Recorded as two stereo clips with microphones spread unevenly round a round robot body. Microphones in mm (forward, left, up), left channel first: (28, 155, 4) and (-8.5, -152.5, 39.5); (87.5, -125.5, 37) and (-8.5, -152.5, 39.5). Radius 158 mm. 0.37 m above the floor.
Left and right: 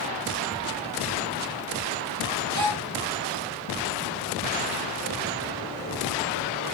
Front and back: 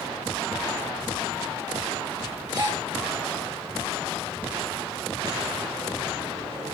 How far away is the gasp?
About 6 m.